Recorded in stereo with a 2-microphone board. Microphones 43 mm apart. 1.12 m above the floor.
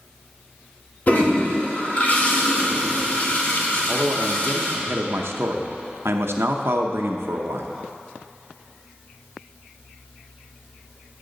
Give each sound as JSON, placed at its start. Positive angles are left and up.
{"t": 1.1, "sound": "a toilet flushing", "side_deg": 40, "distance_m": 1.6}
{"t": 3.9, "sound": "a man speaking", "side_deg": -80, "distance_m": 0.7}